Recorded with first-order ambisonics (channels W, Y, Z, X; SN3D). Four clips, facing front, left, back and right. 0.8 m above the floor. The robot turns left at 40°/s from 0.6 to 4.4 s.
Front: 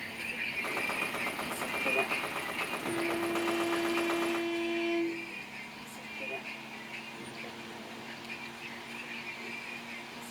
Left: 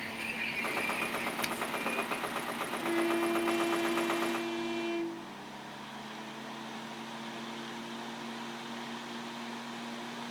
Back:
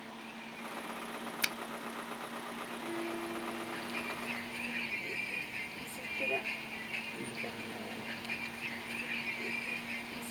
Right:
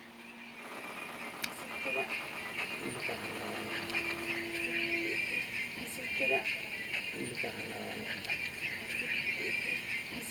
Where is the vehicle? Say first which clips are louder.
Left 13 dB, front 9 dB; 45° left; by 10.3 s 105° right.